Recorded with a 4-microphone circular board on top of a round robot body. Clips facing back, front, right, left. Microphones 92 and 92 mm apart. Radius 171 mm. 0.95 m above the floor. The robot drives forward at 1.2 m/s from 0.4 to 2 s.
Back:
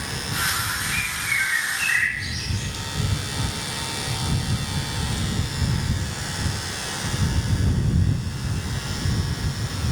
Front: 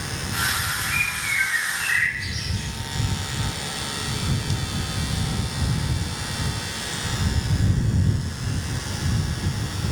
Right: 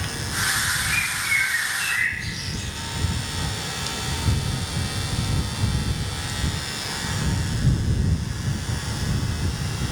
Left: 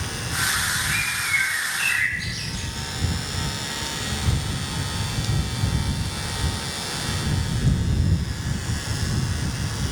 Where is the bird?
20° left, 1.5 m; by 2.7 s 90° left, 0.6 m.